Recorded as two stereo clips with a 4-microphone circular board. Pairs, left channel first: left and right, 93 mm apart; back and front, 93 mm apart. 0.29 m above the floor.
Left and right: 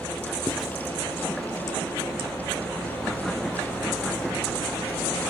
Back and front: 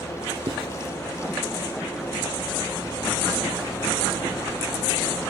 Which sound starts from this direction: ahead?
Writing, at 0.5 s.